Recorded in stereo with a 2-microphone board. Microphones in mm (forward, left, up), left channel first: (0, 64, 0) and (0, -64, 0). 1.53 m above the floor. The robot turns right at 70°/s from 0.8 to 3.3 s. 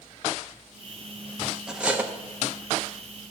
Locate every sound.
1.7 s cutlery clinking: 5° right (ahead or behind), 0.7 m; by 2.1 s 15° right (ahead or behind), 0.7 m